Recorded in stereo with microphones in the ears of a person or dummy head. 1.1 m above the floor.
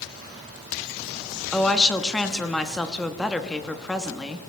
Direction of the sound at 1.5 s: 5° left (ahead or behind).